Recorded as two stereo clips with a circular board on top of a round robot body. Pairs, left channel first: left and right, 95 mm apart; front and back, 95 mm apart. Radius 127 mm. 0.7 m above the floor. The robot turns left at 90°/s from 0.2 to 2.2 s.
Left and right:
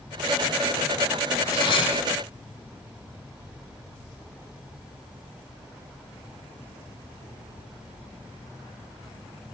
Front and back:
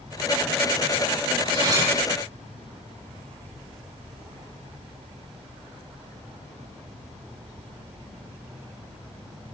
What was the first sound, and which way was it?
Cutlery clinking, 150° left.